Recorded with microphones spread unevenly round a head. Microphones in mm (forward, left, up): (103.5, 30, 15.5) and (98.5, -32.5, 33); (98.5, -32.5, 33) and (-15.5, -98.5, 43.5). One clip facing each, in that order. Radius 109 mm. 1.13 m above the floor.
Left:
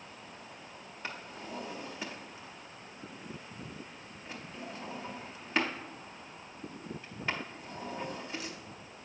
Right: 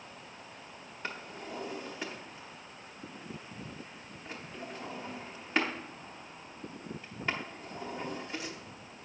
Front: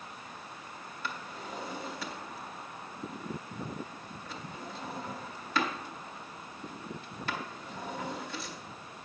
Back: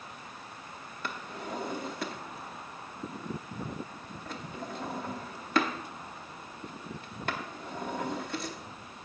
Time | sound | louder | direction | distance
1.0 | a drawer | right 1 dB, back 3 dB | 165° right | 0.7 m